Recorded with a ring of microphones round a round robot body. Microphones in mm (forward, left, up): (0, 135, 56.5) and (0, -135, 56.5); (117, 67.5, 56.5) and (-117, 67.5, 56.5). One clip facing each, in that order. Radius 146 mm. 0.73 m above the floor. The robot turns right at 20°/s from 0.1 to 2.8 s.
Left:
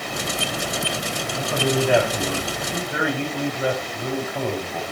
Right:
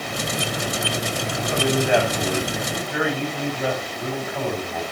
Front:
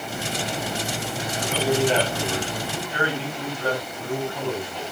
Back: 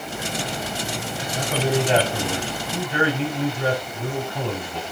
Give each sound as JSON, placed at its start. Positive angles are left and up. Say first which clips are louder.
{"t": 1.4, "sound": "a man speaking", "louder": "even, even", "azimuth_deg": 135, "distance_m": 6.5}